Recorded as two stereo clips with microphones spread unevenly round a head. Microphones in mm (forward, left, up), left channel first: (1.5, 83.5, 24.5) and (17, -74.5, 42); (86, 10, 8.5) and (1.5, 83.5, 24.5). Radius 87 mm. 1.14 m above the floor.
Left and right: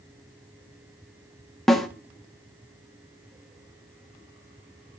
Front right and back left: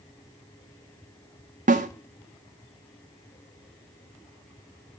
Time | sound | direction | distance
1.7 | a snare drum | 175° right | 0.6 m